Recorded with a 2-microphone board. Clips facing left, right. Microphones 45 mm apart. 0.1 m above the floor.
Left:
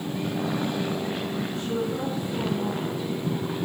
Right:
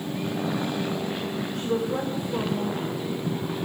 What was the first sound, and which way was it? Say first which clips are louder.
A woman speaking: right 4 dB; 50° right (ahead or behind).